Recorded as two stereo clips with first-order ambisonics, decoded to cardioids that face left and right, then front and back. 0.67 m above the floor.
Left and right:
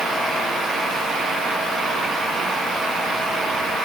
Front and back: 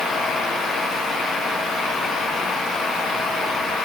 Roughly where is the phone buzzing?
No phone buzzing in this recording.